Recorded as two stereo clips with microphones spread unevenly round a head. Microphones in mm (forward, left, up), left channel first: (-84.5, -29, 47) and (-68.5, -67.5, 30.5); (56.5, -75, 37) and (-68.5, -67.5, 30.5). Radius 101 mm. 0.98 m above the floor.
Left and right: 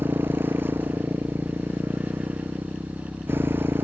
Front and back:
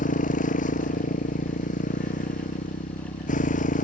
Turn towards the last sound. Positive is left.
turn(degrees=-20)